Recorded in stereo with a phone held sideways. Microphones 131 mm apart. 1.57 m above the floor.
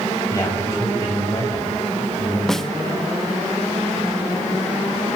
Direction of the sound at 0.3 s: 25° left (ahead or behind).